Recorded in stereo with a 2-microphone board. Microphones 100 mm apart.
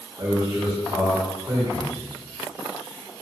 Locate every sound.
0.2 s a man speaking: 30° right (ahead or behind), 1.0 m